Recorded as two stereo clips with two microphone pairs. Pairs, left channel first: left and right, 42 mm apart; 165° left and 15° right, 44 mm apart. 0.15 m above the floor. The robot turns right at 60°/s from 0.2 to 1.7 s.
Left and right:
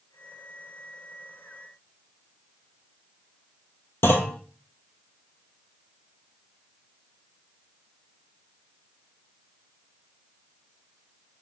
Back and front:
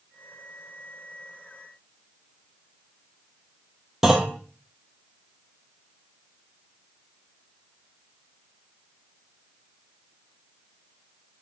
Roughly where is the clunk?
Ahead left.